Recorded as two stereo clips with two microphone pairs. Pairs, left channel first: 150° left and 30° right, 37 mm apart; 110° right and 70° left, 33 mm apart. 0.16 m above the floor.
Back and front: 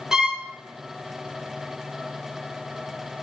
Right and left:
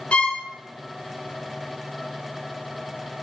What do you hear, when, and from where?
0.1 s a violin: 95° right, 0.9 m